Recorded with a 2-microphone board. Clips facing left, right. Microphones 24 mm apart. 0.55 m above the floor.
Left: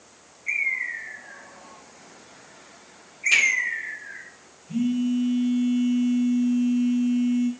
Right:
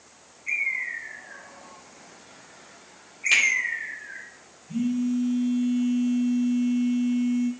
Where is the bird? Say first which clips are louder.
Left 1 dB; 15° left (ahead or behind), 1.1 m.